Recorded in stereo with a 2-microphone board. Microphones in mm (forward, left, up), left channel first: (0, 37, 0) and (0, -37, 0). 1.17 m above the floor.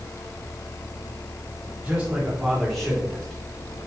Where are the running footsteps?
I don't hear running footsteps.